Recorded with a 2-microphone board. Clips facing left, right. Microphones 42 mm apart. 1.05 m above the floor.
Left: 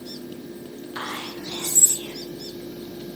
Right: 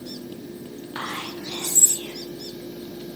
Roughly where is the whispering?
Centre.